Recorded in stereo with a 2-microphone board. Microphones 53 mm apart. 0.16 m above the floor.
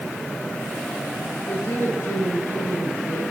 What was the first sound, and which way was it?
A woman speaking, 75° left (ahead or behind).